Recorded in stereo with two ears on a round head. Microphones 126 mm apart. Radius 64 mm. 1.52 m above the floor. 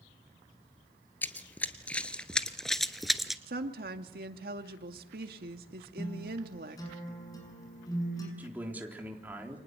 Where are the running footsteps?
15° left (ahead or behind), 1.8 m; by 3.4 s centre (ahead or behind), 1.4 m.